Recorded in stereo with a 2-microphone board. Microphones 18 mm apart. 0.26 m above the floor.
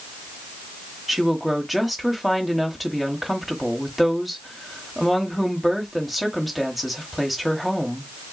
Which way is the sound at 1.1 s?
5° right (ahead or behind).